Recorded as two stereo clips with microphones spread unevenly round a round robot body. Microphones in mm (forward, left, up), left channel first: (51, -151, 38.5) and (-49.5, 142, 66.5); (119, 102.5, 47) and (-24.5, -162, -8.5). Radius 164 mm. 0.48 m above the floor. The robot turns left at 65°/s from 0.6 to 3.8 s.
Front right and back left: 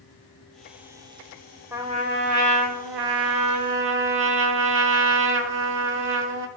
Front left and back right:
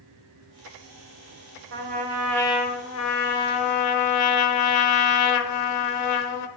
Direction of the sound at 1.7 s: 165° right.